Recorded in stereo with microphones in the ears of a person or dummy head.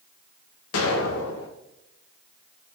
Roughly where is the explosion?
Left.